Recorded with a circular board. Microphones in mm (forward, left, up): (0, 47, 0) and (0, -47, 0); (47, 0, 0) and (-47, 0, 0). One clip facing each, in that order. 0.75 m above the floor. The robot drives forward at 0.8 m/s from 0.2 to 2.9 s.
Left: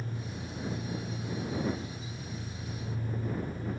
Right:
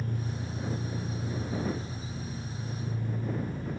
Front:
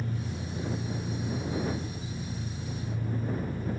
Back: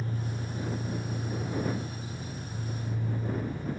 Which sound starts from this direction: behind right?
An engine running, at 0.0 s.